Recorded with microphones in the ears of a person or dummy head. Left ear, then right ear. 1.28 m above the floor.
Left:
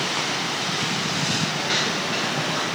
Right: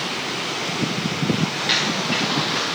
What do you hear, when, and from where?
1.5 s footsteps: 60° right (ahead or behind), 7.5 m; by 2.6 s 65° right (ahead or behind), 7 m